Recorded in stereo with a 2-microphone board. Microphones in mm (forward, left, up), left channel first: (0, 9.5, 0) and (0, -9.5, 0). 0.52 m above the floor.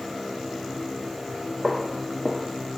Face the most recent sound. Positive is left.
turn(degrees=0)  # may be behind; listen again after turning